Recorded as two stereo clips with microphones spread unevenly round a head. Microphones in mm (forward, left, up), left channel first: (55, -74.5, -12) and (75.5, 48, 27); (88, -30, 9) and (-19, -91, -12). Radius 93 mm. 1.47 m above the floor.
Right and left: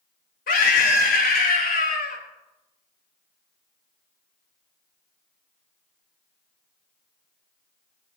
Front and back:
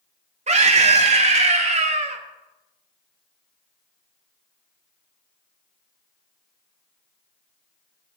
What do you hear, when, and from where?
0.5 s a scream: 120° right, 2.5 m